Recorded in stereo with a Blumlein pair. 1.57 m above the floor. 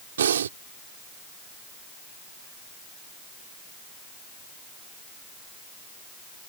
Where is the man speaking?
I don't hear a man speaking.